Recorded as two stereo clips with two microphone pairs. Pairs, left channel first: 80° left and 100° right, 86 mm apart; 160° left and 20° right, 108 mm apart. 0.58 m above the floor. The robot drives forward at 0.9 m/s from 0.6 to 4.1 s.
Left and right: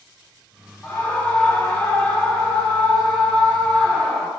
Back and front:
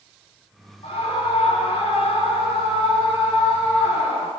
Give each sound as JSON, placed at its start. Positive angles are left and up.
{"t": 0.8, "sound": "a scream", "azimuth_deg": 155, "distance_m": 6.0}